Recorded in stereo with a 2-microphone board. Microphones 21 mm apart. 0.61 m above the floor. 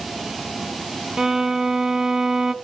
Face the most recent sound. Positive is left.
turn(degrees=-25)  # may be behind; listen again after turning